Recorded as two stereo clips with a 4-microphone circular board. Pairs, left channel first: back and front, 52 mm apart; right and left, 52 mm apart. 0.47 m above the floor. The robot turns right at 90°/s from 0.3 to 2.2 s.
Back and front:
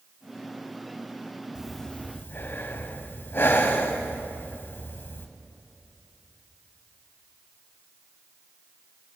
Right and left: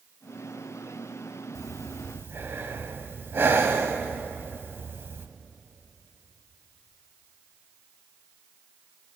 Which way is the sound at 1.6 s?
75° left.